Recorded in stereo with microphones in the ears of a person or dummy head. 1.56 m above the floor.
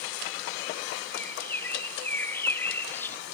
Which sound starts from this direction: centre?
A bird, at 1.1 s.